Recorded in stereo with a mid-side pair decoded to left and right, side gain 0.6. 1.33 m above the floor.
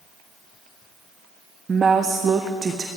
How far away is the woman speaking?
About 0.6 m.